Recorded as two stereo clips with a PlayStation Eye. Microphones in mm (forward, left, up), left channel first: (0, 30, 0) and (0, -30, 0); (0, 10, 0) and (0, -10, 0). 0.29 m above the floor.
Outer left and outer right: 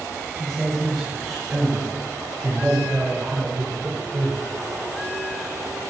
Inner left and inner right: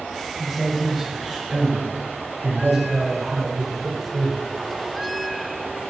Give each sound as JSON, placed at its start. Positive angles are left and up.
{"t": 0.4, "sound": "a man speaking", "side_deg": 5, "distance_m": 1.8}